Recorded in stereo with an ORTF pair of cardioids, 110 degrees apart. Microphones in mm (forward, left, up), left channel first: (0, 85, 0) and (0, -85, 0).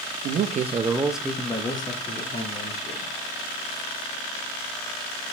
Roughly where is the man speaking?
Ahead right.